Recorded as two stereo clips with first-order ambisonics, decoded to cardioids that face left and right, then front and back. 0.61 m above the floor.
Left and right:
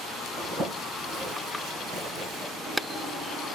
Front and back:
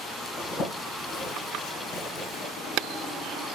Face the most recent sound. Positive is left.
turn(degrees=-35)